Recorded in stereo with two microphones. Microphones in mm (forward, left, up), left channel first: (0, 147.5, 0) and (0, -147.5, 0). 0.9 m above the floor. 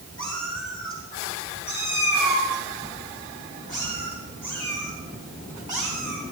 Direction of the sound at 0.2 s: 60° left (ahead or behind).